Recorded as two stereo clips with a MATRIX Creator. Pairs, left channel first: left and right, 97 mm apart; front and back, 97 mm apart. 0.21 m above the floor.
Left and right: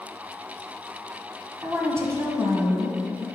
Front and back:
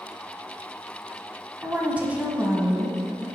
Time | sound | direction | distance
1.6 | a woman speaking | 115° right | 1.4 m